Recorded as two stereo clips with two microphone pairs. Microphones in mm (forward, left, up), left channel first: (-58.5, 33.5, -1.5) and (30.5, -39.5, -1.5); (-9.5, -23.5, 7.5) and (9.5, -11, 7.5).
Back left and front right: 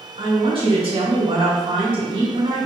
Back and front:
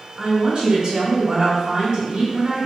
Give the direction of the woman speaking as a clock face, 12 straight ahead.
1 o'clock.